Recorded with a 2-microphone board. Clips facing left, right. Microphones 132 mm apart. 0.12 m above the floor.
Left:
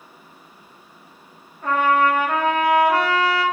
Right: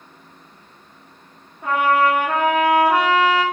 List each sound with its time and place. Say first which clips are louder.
1.6 s a trumpet: right 1 dB; 15° right (ahead or behind), 1.9 m